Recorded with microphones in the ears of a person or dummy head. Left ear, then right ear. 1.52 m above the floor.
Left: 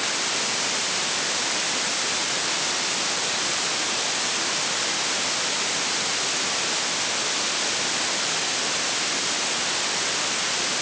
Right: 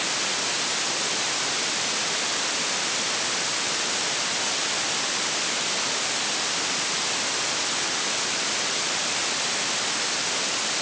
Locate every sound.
Only background noise.